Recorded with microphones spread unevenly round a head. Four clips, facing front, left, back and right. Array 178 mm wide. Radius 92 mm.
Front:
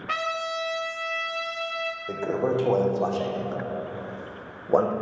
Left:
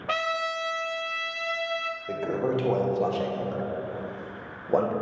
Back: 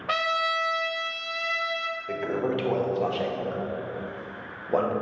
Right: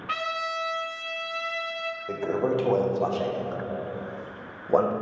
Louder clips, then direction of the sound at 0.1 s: Left 2 dB, back 3 dB; 120° left.